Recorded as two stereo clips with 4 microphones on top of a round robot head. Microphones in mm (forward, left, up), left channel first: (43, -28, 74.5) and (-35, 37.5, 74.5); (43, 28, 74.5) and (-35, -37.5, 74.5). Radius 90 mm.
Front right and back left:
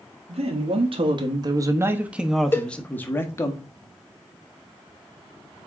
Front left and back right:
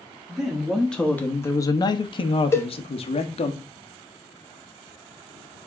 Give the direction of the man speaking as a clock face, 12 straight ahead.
7 o'clock.